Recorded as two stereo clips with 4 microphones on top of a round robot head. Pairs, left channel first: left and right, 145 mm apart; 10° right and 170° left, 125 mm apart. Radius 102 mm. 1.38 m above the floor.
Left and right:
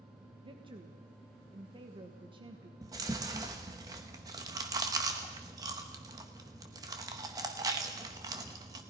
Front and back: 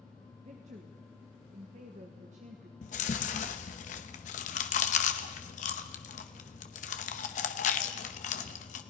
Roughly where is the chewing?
Ahead.